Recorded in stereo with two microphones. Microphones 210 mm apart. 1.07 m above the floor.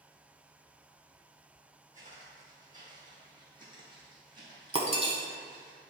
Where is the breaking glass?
30° right (ahead or behind), 1.2 m.